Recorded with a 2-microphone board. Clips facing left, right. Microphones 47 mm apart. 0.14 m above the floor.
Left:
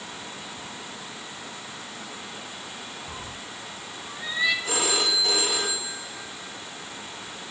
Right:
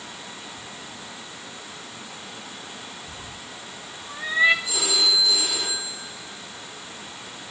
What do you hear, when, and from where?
3.1 s a cat meowing: 30° left (ahead or behind), 1.9 m; by 4.5 s 40° right (ahead or behind), 1.4 m
4.7 s a phone ringing: 50° left (ahead or behind), 5 m